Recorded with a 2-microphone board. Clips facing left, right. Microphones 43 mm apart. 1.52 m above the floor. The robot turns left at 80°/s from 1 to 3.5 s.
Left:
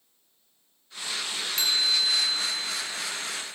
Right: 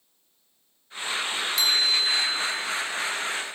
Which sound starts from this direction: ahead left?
A chime, at 1.6 s.